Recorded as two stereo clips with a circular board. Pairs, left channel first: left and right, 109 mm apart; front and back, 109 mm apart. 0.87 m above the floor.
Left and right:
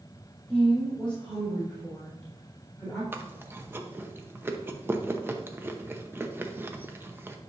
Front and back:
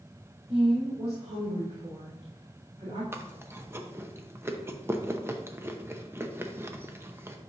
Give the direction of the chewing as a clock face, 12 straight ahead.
5 o'clock.